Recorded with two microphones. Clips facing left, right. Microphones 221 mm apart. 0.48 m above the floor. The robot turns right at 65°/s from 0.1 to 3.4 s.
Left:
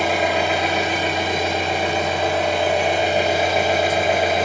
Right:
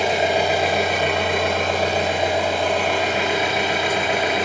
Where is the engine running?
160° right, 1.5 m; by 4.5 s 55° left, 1.5 m.